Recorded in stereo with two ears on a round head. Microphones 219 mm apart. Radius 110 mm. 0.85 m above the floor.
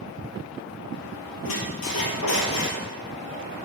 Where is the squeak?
60° left (ahead or behind), 3 m.